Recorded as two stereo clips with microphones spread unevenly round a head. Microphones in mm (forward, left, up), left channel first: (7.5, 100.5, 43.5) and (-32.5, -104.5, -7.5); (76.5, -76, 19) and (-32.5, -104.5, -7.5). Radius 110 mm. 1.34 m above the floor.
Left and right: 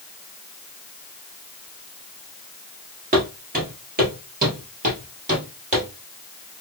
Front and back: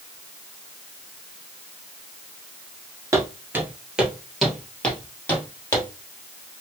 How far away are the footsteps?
About 1.3 m.